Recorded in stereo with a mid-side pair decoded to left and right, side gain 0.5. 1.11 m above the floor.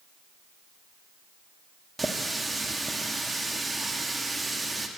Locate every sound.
2.0 s a running tap: 15° right, 1.2 m